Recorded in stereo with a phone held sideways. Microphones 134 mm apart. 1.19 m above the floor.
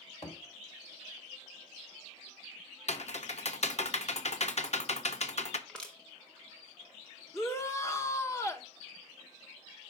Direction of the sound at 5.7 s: 5° left (ahead or behind).